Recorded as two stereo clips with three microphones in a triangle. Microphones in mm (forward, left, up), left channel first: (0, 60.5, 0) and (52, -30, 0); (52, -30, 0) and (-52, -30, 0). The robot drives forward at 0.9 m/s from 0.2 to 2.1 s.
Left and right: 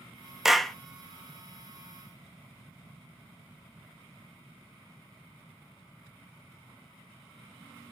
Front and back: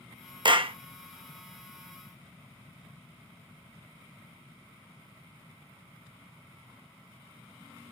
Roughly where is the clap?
Behind right.